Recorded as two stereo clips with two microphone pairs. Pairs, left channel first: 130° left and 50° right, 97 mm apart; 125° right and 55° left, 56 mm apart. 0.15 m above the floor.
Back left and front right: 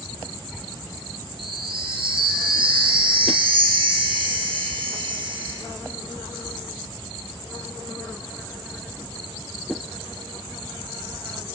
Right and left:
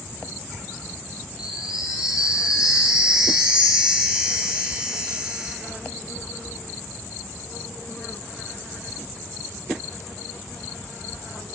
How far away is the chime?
About 1.9 m.